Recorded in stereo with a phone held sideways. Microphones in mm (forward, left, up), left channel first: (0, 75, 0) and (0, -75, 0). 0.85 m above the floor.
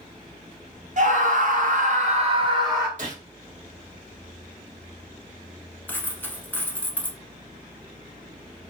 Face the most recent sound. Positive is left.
turn(degrees=15)  # may be behind; listen again after turning